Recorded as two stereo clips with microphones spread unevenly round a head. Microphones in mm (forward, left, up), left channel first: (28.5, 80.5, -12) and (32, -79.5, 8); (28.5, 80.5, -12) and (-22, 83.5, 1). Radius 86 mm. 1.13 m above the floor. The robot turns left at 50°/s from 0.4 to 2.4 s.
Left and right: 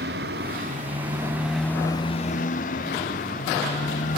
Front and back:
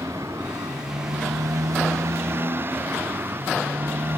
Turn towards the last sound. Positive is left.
turn(degrees=140)